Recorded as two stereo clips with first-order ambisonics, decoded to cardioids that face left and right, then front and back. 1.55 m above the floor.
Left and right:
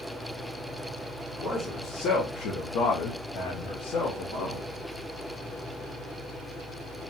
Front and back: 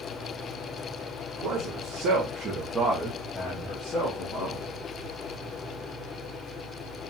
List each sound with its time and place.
1.4 s a man speaking: 155° left, 1.0 m; by 4.7 s 45° left, 1.1 m